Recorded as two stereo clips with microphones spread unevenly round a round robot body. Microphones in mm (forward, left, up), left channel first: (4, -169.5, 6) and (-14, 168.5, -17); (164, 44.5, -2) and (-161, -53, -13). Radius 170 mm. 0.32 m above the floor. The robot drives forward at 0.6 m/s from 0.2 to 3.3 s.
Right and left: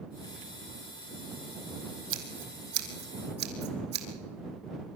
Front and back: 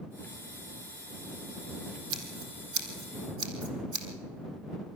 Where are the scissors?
150° left, 3 m; by 4.1 s 155° left, 3.5 m.